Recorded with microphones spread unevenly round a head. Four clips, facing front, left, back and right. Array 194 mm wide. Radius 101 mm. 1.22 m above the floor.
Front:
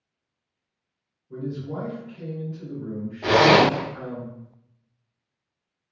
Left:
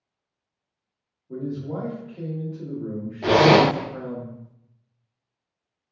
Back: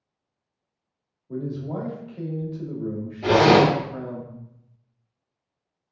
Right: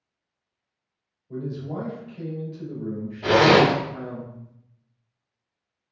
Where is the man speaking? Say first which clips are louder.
Left 2 dB, back 2 dB; 160° left, 1.5 m.